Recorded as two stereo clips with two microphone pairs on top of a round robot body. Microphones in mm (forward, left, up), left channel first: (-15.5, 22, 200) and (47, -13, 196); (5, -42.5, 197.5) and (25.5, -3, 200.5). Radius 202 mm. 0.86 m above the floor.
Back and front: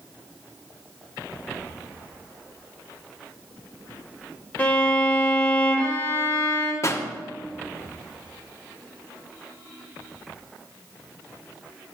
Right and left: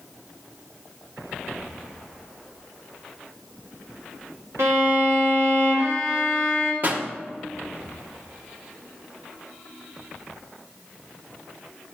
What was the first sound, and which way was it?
A violin, 80° left.